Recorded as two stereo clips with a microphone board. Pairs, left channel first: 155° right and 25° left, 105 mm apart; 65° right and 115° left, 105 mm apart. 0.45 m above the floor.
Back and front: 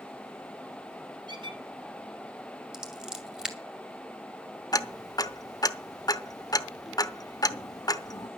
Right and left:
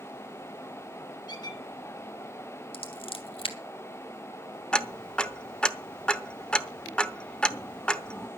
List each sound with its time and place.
1.3 s a squeak: 20° right, 2.5 m
2.7 s scissors: 60° right, 2 m
4.7 s ticking: 145° right, 0.8 m